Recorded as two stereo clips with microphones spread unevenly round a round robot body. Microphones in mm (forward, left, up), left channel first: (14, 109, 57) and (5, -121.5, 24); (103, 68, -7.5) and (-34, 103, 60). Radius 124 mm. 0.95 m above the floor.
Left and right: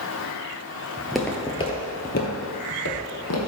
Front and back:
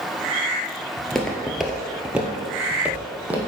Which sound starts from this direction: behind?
Footsteps, at 1.0 s.